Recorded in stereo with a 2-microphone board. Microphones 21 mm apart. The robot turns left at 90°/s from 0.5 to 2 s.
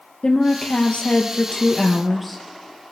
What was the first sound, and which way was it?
A woman speaking, 135° left.